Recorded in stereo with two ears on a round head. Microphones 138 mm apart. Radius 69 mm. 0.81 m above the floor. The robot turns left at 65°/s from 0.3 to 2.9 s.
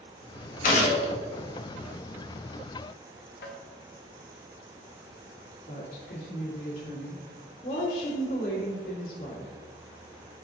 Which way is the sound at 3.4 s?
70° left (ahead or behind).